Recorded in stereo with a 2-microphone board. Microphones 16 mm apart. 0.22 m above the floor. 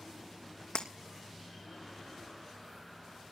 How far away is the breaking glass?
About 2.5 m.